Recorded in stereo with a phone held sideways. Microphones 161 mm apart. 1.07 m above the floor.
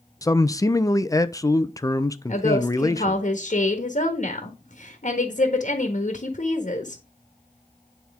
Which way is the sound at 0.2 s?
20° left (ahead or behind).